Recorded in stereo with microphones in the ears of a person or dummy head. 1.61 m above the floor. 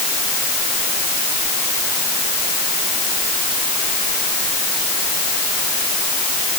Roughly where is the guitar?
No guitar in this recording.